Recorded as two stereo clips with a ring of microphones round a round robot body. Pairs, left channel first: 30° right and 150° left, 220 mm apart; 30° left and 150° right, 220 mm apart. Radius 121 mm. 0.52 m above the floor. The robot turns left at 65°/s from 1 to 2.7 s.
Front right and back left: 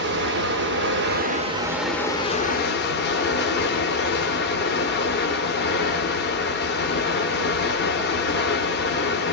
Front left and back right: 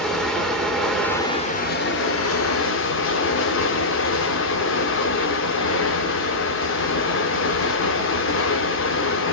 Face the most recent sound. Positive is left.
turn(degrees=5)